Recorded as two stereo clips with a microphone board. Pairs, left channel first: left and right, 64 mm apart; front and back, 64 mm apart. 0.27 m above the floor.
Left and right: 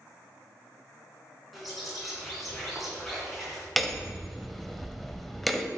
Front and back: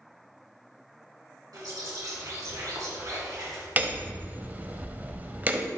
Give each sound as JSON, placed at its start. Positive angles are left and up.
{"t": 1.5, "sound": "a bird", "azimuth_deg": 180, "distance_m": 2.5}
{"t": 3.8, "sound": "hammering", "azimuth_deg": 180, "distance_m": 0.7}